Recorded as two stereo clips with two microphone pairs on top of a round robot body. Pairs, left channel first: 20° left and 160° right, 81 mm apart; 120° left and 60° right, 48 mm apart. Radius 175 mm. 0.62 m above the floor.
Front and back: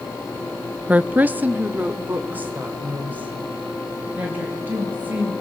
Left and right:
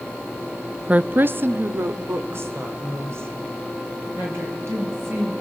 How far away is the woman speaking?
About 0.6 m.